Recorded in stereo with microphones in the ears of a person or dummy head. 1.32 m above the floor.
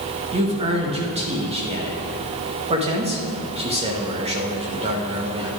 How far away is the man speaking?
About 1.6 m.